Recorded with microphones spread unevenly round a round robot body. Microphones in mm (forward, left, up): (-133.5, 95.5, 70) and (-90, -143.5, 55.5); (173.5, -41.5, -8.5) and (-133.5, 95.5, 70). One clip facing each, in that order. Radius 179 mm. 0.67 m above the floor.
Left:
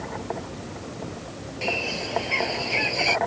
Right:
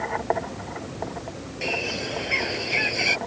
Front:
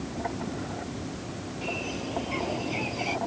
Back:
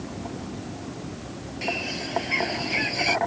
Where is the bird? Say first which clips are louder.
Even, back 2 dB; 150° right.